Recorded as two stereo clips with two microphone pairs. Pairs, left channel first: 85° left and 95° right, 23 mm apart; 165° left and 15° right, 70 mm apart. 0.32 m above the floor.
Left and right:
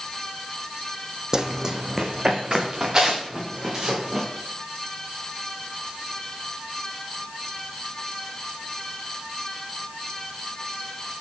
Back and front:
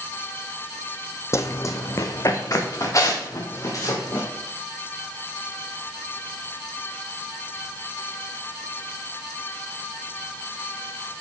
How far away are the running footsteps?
About 0.5 m.